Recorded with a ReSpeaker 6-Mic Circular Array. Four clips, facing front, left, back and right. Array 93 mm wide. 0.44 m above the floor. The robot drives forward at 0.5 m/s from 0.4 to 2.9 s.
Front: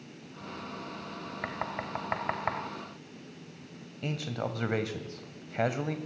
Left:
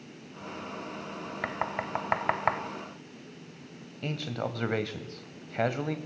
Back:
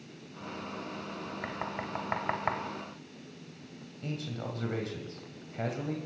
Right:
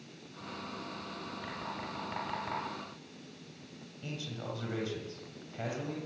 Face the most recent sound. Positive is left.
turn(degrees=50)